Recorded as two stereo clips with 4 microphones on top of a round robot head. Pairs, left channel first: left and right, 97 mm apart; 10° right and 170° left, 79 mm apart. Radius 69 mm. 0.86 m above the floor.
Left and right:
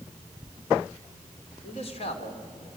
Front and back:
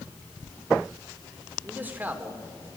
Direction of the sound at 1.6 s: 100° left.